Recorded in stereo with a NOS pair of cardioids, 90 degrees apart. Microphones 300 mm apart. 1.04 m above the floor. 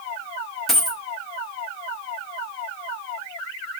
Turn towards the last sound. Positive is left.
turn(degrees=0)